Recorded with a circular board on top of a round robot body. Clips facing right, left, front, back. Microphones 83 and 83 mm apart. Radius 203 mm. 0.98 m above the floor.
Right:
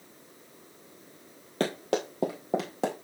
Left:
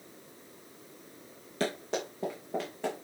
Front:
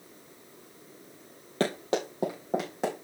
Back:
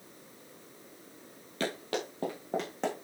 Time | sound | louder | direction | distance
1.6 | running footsteps | right 4 dB, front 6 dB | 50° right | 1.2 m